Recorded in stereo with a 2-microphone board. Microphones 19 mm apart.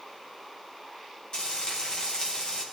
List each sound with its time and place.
1.3 s frying: 45° left (ahead or behind), 6 m